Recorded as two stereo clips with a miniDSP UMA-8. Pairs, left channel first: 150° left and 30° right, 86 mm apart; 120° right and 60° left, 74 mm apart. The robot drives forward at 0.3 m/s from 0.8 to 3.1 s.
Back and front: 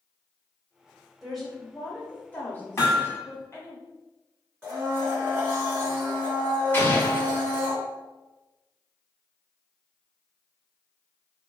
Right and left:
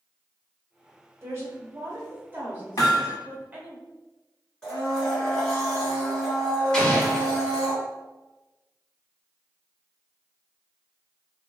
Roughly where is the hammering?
Behind right.